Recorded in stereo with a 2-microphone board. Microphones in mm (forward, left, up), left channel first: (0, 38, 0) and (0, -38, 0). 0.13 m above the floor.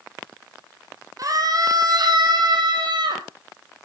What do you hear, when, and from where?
1.2 s a scream: 50° right (ahead or behind), 4 m; by 3.2 s 75° right (ahead or behind), 4.5 m